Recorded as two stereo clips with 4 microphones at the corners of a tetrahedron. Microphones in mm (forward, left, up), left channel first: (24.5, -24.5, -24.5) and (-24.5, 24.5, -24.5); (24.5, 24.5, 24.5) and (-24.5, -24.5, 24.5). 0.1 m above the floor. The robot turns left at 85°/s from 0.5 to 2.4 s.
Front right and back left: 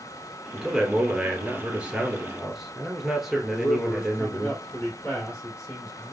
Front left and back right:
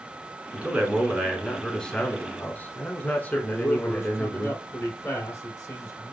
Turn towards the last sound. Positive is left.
turn(degrees=0)